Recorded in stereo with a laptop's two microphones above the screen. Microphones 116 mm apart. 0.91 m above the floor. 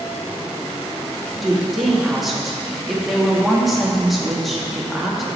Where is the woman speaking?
Centre (ahead or behind), 1.3 m.